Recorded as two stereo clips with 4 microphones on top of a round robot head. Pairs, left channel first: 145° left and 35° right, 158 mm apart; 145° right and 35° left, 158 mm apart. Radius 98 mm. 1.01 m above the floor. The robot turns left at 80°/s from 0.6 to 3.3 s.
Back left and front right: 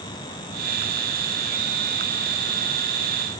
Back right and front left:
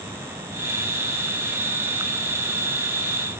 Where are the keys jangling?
I don't hear keys jangling.